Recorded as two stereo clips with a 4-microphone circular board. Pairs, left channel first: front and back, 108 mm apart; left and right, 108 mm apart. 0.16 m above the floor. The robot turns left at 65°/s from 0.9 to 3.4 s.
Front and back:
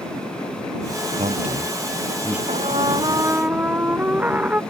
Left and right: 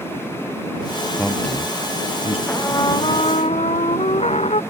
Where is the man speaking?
Straight behind; by 2.4 s 105° left.